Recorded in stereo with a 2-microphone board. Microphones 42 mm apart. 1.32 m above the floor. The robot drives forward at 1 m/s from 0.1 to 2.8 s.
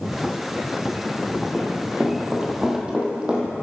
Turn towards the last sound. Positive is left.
turn(degrees=-25)  # may be behind; listen again after turning